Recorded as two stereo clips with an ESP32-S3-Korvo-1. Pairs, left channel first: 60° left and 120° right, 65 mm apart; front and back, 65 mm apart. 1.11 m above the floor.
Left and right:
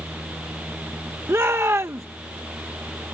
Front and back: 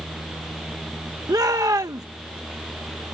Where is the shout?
165° right.